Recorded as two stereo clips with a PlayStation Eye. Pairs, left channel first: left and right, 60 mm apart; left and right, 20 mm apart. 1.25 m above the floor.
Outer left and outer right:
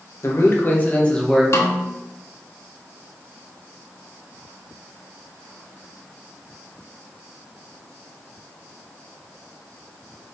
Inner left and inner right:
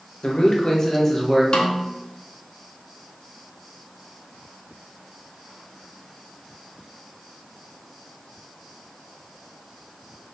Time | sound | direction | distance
0.2 | a man speaking | 55° left (ahead or behind) | 1.6 m
1.5 | a snare drum | 50° left (ahead or behind) | 1.4 m